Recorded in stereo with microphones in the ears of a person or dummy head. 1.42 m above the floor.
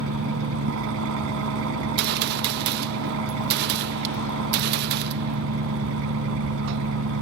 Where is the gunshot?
60° right (ahead or behind).